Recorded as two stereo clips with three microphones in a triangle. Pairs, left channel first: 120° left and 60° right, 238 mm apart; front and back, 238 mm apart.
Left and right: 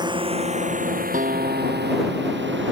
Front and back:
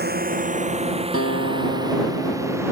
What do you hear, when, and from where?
0.0 s a drone: 130° right; by 2.7 s 100° right
1.1 s a guitar: 5° right